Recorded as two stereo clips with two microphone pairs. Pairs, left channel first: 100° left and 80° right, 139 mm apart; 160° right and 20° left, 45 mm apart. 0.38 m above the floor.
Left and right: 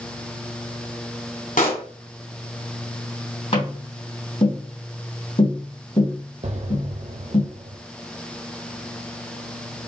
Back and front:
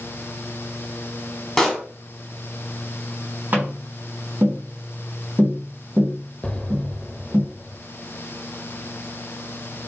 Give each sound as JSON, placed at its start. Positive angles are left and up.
{"t": 1.6, "sound": "a pop", "azimuth_deg": 110, "distance_m": 1.5}
{"t": 3.5, "sound": "tapping", "azimuth_deg": 65, "distance_m": 2.5}
{"t": 6.4, "sound": "an explosion", "azimuth_deg": -95, "distance_m": 0.6}